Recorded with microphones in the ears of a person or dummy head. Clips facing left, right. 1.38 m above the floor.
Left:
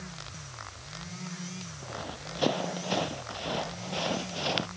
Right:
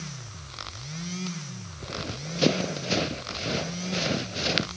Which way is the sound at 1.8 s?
40° right (ahead or behind).